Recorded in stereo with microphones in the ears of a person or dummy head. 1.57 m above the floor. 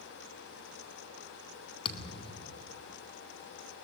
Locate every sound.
1.9 s a thud: 30° left (ahead or behind), 2 m